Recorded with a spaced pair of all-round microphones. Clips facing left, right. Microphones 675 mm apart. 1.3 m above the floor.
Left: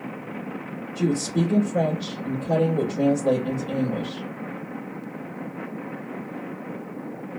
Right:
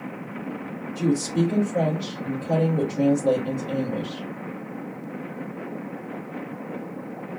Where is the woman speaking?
45° left (ahead or behind), 2 m.